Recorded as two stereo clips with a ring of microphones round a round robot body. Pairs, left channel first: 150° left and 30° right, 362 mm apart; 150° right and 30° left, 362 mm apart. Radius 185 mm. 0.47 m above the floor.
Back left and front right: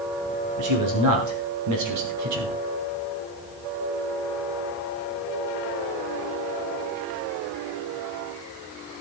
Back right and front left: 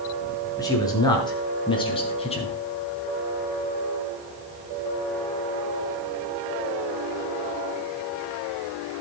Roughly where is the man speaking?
Right.